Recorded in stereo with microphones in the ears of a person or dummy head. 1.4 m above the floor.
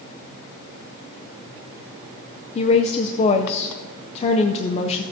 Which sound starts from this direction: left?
A woman speaking, at 2.5 s.